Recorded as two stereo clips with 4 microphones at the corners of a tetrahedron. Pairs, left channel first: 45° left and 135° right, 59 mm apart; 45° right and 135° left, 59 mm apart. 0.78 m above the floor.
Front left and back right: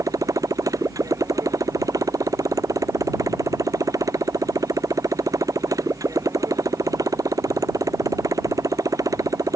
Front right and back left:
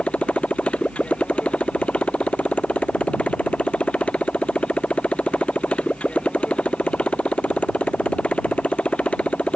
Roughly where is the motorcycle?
Behind right.